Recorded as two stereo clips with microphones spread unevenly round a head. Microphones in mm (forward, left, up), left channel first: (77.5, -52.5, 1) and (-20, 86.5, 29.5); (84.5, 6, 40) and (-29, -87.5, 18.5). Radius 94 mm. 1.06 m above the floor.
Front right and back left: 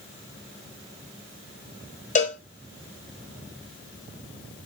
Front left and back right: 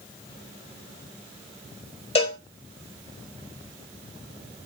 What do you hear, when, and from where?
2.1 s a cowbell: 10° right, 3.5 m